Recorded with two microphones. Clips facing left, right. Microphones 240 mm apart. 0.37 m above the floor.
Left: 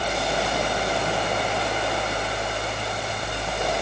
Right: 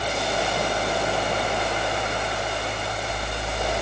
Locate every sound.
Only background noise.